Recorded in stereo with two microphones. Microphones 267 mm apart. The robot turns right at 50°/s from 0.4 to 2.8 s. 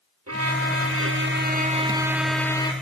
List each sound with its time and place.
0.3 s a violin: 95° right, 1.2 m; by 2.7 s 20° left, 1.2 m